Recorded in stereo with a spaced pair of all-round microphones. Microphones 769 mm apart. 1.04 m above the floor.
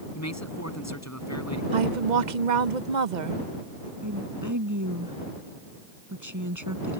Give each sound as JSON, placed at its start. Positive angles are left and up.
{"t": 0.1, "sound": "a man speaking", "side_deg": 20}
{"t": 1.7, "sound": "a woman speaking", "side_deg": -80}
{"t": 4.0, "sound": "a woman speaking", "side_deg": -25}